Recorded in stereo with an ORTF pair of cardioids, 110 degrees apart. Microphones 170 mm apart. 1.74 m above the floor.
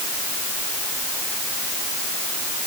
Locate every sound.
Only background noise.